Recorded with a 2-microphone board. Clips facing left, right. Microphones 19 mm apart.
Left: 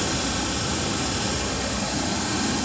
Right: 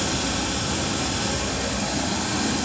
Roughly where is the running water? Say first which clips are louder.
Right 1 dB; centre.